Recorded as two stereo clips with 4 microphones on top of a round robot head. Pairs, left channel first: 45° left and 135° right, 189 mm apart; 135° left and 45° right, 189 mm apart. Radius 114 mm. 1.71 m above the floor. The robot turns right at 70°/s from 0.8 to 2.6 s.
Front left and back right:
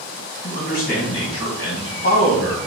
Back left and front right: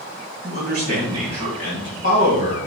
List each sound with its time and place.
0.4 s a man speaking: straight ahead, 2 m; by 2.6 s 120° left, 2 m